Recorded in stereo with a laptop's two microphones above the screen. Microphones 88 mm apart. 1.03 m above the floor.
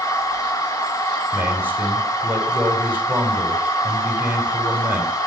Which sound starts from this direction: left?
A machine running, at 0.0 s.